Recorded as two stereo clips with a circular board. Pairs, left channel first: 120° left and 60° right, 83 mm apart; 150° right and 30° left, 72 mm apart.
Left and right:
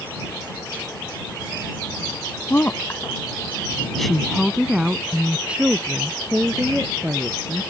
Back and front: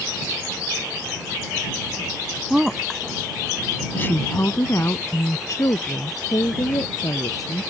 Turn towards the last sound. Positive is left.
turn(degrees=-125)